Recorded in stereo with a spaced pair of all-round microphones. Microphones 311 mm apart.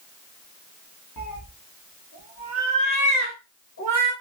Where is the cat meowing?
70° left (ahead or behind), 1.7 m; by 4.1 s 55° left (ahead or behind), 3 m.